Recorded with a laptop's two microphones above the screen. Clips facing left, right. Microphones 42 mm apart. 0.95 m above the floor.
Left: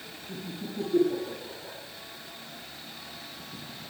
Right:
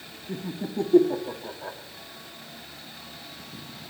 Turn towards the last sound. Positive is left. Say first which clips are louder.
# right 6 dB
turn(degrees=-75)  # may be behind; listen again after turning